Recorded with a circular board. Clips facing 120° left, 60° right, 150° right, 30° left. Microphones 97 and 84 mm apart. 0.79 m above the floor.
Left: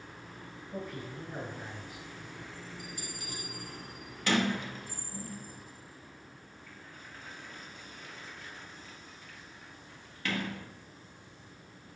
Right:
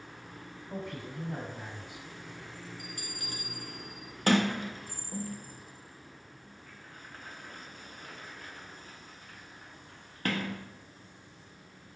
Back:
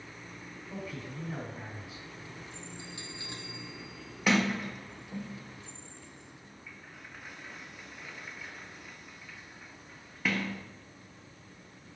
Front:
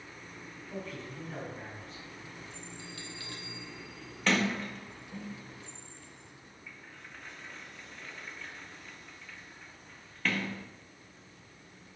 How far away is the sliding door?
About 1.4 m.